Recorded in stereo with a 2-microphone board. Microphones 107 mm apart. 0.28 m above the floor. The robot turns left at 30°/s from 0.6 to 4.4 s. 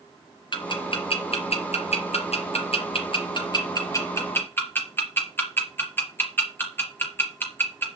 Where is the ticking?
45° left (ahead or behind), 3.5 m; by 7.9 s 20° left (ahead or behind), 3.5 m.